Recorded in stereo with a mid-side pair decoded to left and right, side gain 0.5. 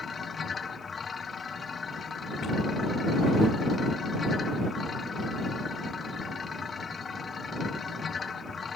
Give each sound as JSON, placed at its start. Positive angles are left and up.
{"t": 0.0, "sound": "a machine running", "azimuth_deg": 35}